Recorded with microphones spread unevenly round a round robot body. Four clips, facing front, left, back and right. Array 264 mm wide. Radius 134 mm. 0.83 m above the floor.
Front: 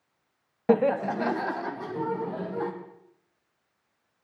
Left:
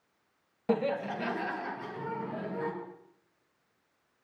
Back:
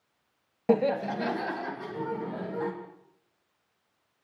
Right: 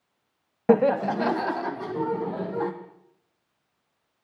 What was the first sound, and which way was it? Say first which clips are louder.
Laughter: right 10 dB, front 2 dB; 80° right.